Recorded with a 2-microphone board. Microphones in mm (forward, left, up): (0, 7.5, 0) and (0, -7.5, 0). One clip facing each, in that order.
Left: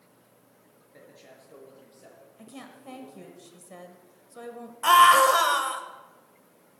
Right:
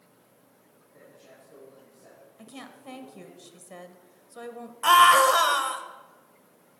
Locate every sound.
0.9 s a man speaking: 75° left (ahead or behind), 4 m; by 3.4 s 70° left (ahead or behind), 7.5 m
2.4 s a woman speaking: 20° right (ahead or behind), 1.1 m
4.8 s a scream: 10° right (ahead or behind), 0.9 m